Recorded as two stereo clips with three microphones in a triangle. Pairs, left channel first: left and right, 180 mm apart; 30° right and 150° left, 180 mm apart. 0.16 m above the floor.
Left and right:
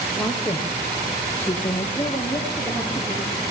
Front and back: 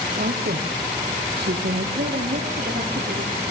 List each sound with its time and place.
0.2 s a woman speaking: 175° left, 4 m; by 1.9 s 165° left, 5 m
1.9 s a woman speaking: 175° left, 5 m